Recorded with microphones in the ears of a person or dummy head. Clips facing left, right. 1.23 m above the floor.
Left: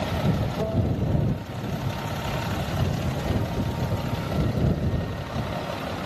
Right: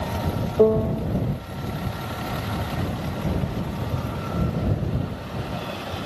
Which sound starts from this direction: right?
A piano, at 0.6 s.